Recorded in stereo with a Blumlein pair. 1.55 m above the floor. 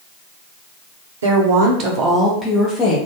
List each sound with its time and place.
1.2 s a woman speaking: 60° right, 0.7 m; by 3.0 s 15° left, 0.8 m